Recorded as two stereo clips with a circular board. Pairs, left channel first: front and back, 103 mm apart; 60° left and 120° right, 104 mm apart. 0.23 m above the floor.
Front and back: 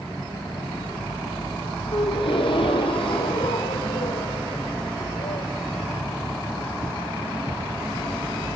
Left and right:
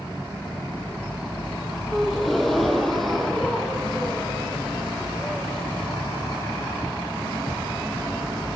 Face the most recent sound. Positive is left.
turn(degrees=-30)